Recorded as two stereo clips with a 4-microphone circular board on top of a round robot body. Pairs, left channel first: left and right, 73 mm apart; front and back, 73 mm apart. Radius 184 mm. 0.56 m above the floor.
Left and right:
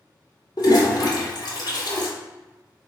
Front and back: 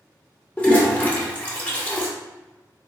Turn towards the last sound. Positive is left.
turn(degrees=70)